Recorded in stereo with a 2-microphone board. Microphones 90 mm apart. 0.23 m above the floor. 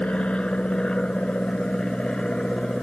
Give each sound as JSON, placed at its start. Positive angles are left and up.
{"t": 0.0, "sound": "an aircraft", "side_deg": 10}